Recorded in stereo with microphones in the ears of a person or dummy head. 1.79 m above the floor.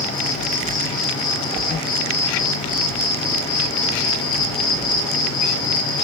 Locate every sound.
0.0 s an insect: 25° left (ahead or behind), 4 m